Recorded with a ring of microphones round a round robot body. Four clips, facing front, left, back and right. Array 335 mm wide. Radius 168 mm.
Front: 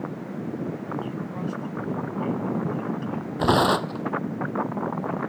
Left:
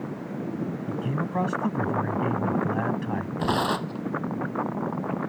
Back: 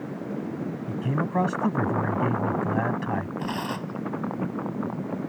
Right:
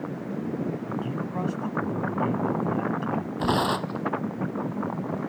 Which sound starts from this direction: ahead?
Tearing paper, at 3.4 s.